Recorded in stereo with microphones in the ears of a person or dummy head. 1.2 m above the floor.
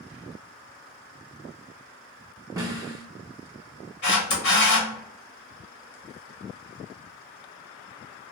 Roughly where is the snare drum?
Centre.